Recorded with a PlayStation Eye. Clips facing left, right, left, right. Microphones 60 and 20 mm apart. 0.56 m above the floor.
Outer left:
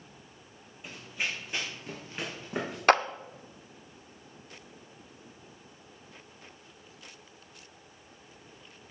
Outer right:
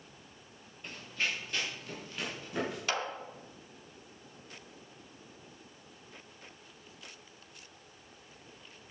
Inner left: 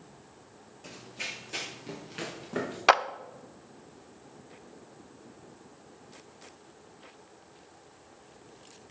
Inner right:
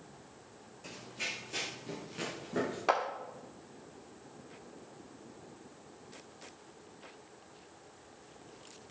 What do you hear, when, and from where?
0.8 s running footsteps: 10° left (ahead or behind), 1.8 m; by 2.8 s 30° left (ahead or behind), 4.5 m
2.9 s a clap: 50° left (ahead or behind), 0.6 m